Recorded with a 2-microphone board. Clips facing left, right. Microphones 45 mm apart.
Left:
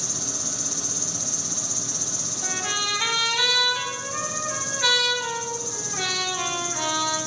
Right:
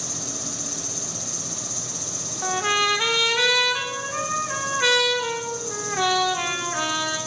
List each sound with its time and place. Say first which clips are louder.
0.0 s an insect: right 1 dB; 15° right (ahead or behind), 2 m
2.4 s a trumpet: right 7 dB; 45° right (ahead or behind), 1.5 m